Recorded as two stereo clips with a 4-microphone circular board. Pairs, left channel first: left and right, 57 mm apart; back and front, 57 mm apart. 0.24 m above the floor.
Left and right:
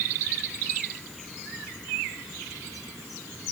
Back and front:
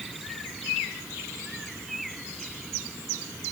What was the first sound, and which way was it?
Only background noise.